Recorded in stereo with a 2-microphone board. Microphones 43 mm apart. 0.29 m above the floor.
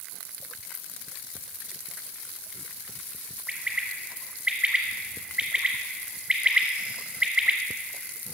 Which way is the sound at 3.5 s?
30° right (ahead or behind).